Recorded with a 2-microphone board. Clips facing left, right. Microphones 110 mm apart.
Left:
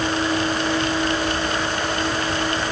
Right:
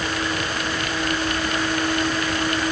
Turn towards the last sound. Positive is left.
No sound to turn to.